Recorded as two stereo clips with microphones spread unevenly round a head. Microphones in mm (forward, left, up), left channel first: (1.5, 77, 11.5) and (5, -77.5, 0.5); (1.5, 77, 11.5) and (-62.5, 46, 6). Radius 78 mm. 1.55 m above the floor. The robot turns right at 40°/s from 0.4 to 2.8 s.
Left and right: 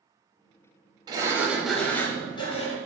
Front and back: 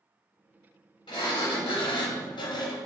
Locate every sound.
1.1 s a sliding door: 25° right, 0.9 m; by 2.8 s 45° left, 0.9 m